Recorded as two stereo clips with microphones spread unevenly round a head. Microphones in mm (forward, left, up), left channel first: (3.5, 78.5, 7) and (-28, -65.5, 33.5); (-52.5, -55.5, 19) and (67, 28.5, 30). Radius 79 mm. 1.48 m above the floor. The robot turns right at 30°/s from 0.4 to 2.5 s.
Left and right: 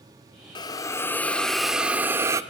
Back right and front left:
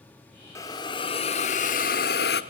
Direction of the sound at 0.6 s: 145° left.